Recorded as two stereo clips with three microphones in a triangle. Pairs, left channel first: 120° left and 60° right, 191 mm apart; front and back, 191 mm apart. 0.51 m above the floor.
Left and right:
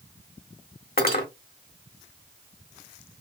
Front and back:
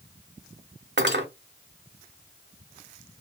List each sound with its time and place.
1.0 s cutlery clinking: 155° left, 1.4 m